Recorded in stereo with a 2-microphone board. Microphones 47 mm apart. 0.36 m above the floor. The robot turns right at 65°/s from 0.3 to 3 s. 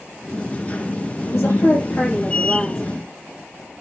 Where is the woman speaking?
95° left, 8 m; by 2.8 s 160° right, 8 m.